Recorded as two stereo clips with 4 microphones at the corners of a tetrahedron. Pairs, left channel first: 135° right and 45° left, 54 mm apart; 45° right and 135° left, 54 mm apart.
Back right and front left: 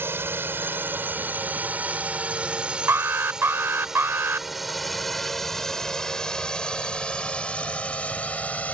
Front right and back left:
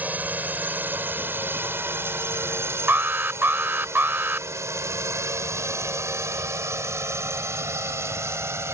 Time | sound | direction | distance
0.0 | a drone | 80° left | ?
2.9 | an alarm | 85° left | ?